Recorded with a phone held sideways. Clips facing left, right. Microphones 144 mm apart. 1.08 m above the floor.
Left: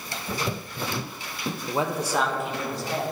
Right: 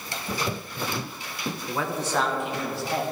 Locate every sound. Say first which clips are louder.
1.7 s a man speaking: left 3 dB; 30° left (ahead or behind), 0.6 m; by 3.0 s 5° right (ahead or behind), 2 m